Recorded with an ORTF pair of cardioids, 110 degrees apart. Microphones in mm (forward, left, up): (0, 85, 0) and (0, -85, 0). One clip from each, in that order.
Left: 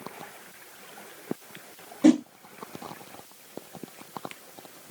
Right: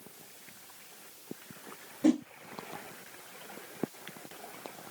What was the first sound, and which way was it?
A whoosh, 35° left.